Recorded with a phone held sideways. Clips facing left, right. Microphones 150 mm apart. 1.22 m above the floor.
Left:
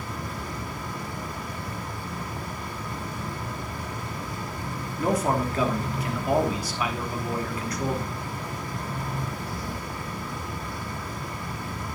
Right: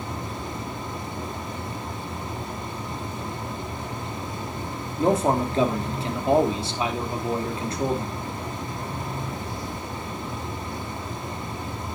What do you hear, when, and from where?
0.0 s a fan: 25° right (ahead or behind), 4.5 m
5.0 s a man speaking: 25° right (ahead or behind), 3 m